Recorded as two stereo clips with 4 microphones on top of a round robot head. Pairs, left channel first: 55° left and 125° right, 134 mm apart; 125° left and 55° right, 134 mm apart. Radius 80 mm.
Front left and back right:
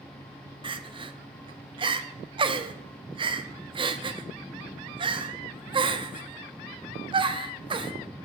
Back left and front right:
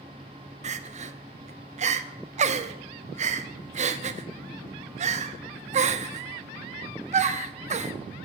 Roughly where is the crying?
Right.